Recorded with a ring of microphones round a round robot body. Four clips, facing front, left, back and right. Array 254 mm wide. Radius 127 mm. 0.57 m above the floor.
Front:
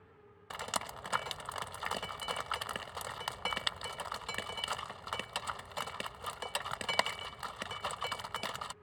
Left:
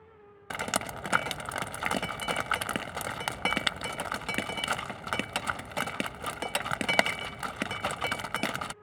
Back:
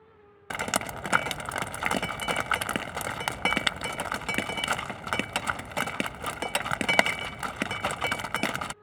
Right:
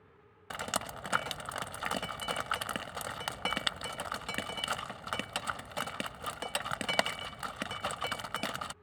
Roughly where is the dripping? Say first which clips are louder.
Left 4 dB, back 9 dB; behind left.